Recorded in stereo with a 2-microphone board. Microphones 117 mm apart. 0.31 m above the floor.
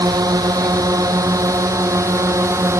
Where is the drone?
30° right (ahead or behind); by 2.8 s 25° right (ahead or behind).